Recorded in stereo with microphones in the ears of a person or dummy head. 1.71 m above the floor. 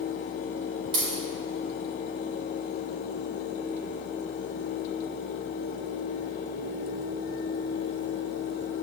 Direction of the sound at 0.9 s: 30° right (ahead or behind).